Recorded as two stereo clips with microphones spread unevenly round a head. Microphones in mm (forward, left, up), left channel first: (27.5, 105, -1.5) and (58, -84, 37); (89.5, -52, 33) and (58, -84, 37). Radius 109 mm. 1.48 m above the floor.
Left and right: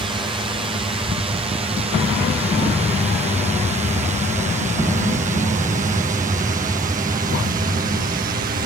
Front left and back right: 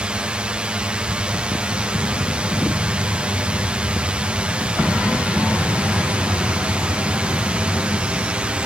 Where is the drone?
125° right; by 8.7 s 90° right.